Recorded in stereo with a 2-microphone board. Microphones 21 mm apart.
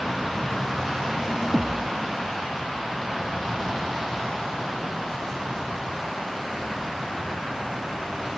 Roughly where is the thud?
Centre.